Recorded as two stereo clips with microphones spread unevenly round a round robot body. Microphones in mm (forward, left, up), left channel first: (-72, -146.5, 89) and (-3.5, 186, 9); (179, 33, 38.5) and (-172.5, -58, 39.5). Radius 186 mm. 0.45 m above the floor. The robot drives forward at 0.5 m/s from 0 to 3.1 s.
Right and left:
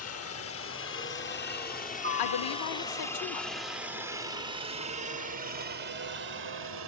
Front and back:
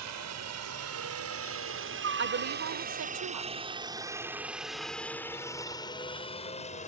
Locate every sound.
0.0 s a helicopter: 145° right; by 6.9 s 80° left
2.2 s a woman speaking: 110° right; by 3.5 s 130° right